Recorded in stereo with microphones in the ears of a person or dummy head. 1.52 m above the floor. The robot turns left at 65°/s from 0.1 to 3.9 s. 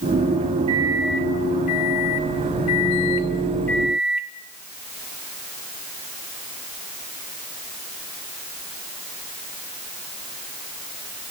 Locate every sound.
0.7 s a microwave: 155° right, 3 m; by 4.3 s 5° right, 3 m